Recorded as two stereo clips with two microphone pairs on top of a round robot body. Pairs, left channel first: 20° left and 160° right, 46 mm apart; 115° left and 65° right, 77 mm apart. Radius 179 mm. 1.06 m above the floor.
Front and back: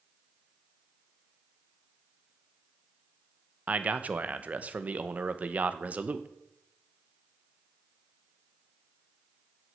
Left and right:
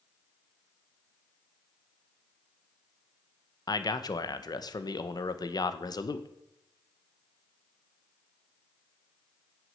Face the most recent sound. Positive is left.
turn(degrees=150)